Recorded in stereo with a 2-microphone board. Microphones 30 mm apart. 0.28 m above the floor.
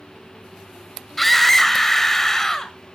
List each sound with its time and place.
1.2 s a scream: 5° left (ahead or behind), 1.5 m; by 2.7 s 15° left (ahead or behind), 1.5 m